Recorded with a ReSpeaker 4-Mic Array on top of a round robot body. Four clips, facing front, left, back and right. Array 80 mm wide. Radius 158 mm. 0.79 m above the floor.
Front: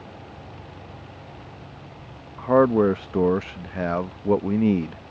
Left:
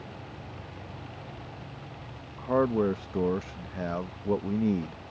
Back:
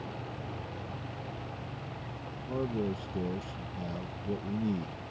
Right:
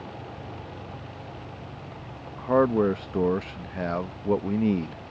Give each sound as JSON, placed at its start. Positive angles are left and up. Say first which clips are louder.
{"t": 2.4, "sound": "a man speaking", "louder": "right 4 dB, front 17 dB", "azimuth_deg": -20}